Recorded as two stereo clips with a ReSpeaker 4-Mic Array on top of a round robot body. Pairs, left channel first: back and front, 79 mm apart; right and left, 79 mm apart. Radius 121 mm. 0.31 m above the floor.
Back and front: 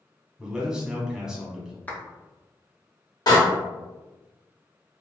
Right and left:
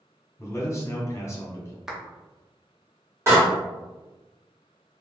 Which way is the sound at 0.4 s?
75° right.